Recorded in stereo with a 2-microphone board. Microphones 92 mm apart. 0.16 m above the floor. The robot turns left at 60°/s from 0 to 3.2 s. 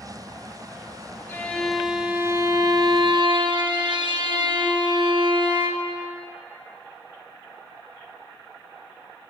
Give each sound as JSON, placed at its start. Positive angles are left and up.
{"t": 1.3, "sound": "a violin", "azimuth_deg": 30, "distance_m": 1.6}